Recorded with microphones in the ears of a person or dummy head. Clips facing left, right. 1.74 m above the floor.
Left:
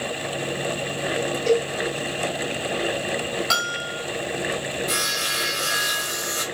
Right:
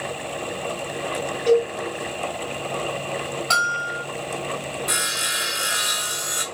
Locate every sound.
1.5 s a cowbell: 20° left (ahead or behind), 2.5 m
3.5 s a bell: 20° left (ahead or behind), 1.6 m
4.9 s sawing: 10° right (ahead or behind), 1.4 m